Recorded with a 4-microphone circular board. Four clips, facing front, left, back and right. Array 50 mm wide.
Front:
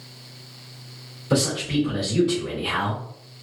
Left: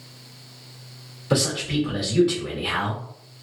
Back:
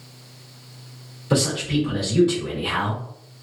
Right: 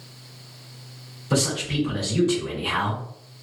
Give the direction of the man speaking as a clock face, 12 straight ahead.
9 o'clock.